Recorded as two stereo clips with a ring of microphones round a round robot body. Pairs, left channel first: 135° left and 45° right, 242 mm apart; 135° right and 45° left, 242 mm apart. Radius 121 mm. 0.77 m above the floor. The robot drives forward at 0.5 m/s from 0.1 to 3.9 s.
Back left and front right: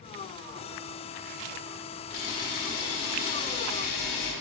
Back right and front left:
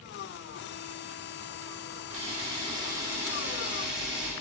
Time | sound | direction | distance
2.1 | a camera shutter | 105° left | 1.6 m